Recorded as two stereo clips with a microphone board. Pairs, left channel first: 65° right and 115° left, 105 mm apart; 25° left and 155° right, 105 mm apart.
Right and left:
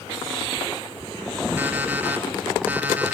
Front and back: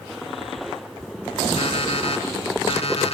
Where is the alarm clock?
40° left, 3 m.